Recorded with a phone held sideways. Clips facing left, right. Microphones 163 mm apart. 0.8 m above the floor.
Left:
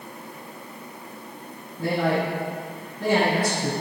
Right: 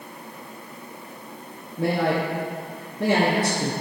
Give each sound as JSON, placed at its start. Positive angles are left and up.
{"t": 1.8, "sound": "a man speaking", "side_deg": -65, "distance_m": 1.0}